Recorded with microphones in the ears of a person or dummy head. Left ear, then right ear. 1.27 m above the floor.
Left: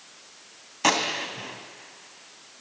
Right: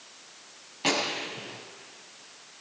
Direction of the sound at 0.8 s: 40° left (ahead or behind).